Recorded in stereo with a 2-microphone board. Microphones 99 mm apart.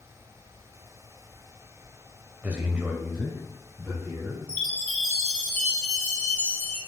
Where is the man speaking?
15° right (ahead or behind), 0.9 m; by 4.4 s 5° left (ahead or behind), 2.5 m.